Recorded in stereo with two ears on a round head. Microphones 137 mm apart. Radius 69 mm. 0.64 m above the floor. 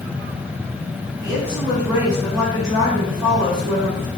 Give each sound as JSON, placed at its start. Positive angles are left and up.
{"t": 1.2, "sound": "a woman speaking", "side_deg": -25, "distance_m": 2.5}